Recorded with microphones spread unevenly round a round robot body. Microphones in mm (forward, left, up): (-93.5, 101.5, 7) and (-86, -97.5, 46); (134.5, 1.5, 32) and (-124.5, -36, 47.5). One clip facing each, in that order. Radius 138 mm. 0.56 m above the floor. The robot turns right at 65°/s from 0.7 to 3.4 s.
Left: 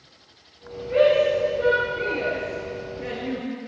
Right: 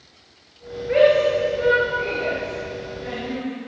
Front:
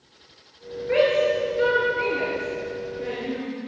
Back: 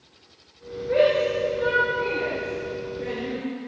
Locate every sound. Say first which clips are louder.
0.9 s a shout: right 2 dB, even; 45° right, 9 m; by 3.5 s 115° left, 9 m